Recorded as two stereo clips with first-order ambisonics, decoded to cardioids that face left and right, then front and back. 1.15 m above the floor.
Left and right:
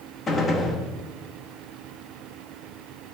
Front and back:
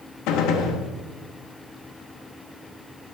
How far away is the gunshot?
About 0.8 m.